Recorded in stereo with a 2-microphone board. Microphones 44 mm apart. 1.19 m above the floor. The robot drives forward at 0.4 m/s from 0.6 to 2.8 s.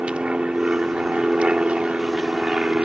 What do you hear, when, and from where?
0.0 s an aircraft: 25° right (ahead or behind)